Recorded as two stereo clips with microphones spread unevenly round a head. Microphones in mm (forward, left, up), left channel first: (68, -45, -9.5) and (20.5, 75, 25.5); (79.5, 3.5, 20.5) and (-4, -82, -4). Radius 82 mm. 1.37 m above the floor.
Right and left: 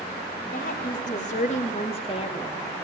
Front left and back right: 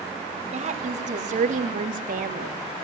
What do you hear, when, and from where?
0.5 s a woman speaking: 110° right, 2.5 m; by 2.6 s 135° right, 1.6 m